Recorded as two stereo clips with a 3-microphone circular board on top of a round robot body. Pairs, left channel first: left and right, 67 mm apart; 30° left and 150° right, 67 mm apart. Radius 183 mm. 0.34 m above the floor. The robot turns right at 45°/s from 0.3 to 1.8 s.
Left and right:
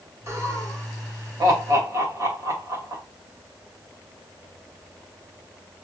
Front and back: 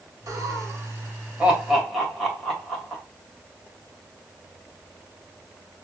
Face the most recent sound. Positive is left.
turn(degrees=-65)